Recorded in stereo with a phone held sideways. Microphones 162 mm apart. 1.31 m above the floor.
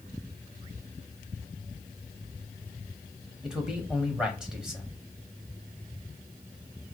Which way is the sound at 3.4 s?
5° right (ahead or behind).